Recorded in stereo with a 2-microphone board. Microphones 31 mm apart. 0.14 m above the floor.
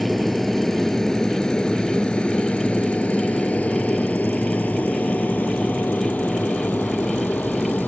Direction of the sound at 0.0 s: 5° left (ahead or behind).